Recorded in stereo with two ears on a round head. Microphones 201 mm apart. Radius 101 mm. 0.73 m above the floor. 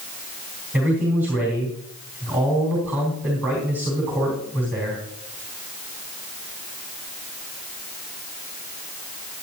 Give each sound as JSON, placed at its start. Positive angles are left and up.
{"t": 0.7, "sound": "a man speaking", "side_deg": -10, "distance_m": 3.5}